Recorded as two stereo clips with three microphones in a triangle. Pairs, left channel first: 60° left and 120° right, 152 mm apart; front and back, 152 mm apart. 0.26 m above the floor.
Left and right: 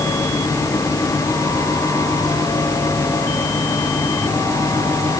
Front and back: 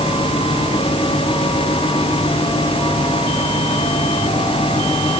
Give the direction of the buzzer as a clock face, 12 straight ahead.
I don't hear a buzzer.